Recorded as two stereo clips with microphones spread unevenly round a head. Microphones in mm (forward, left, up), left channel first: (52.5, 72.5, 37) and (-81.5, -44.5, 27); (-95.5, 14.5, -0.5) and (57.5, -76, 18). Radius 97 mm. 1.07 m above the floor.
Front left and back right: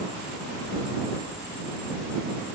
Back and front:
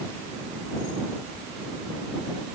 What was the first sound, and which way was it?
Only background noise.